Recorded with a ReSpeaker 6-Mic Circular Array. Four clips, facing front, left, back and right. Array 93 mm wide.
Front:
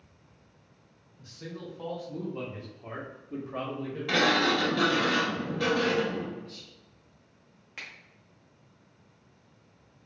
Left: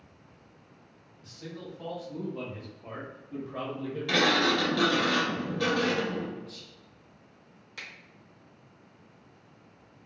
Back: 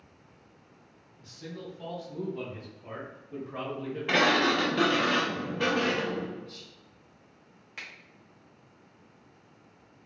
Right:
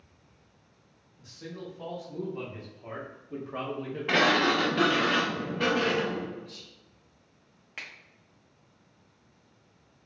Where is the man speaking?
10° right, 2.0 m; by 5.1 s 140° right, 1.1 m.